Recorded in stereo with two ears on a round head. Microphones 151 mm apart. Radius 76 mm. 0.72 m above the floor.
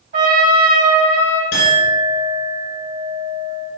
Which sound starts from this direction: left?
A clink, at 1.5 s.